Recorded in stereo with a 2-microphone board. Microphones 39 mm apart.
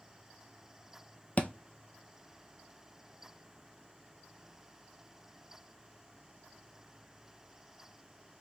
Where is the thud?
35° left (ahead or behind), 0.5 m.